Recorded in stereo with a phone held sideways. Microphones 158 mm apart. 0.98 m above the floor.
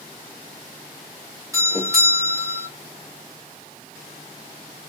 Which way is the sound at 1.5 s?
20° right (ahead or behind).